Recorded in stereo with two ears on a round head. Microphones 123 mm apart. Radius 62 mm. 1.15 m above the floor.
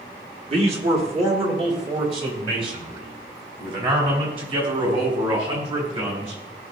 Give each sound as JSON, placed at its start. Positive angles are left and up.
{"t": 0.5, "sound": "a man speaking", "side_deg": -45, "distance_m": 2.0}